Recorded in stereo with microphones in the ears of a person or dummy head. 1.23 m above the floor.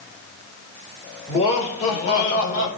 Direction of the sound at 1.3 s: 30° left (ahead or behind).